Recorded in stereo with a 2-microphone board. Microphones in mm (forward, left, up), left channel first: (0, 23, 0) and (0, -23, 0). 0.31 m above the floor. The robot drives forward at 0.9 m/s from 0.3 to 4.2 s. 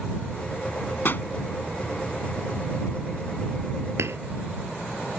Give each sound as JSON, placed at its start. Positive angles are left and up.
{"t": 1.1, "sound": "a pop", "side_deg": 50}
{"t": 4.0, "sound": "hammering", "side_deg": -75}